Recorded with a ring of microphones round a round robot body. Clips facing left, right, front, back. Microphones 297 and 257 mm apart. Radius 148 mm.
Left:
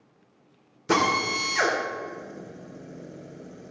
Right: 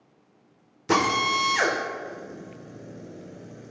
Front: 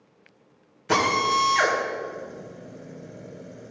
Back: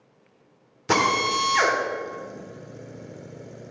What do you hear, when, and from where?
0.9 s a drill: 175° right, 2 m